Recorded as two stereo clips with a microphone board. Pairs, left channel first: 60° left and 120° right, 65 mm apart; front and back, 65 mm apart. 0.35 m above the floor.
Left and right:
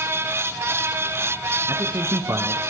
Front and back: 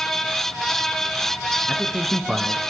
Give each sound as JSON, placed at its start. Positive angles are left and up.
{"t": 1.7, "sound": "a man speaking", "azimuth_deg": -100, "distance_m": 4.0}